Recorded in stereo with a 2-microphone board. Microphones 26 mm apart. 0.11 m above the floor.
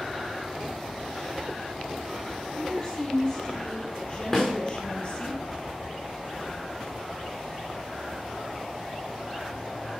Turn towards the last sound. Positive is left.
turn(degrees=25)  # may be behind; listen again after turning